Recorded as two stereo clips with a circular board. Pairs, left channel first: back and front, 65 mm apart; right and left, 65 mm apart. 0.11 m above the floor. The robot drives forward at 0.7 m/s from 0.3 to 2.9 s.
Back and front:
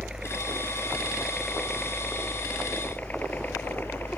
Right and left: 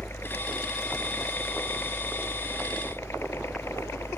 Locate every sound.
0.0 s a helicopter: 70° right; by 4.2 s 130° right